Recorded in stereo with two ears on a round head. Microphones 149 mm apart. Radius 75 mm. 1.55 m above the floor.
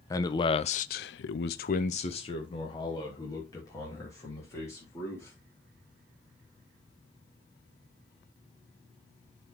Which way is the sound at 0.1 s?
20° left (ahead or behind).